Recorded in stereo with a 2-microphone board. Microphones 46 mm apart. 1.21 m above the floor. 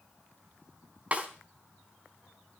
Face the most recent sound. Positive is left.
turn(degrees=-30)  # may be behind; listen again after turning